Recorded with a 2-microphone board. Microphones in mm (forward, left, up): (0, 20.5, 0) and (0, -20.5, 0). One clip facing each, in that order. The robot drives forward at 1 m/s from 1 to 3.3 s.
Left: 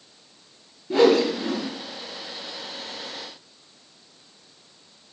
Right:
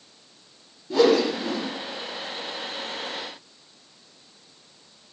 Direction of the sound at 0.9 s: 35° left (ahead or behind).